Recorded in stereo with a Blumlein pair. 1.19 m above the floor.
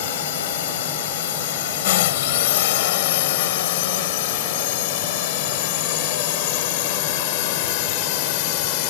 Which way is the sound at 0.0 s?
55° left.